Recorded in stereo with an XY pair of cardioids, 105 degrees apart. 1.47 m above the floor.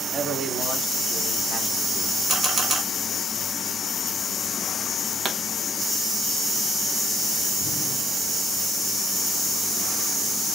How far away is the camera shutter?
About 1.7 m.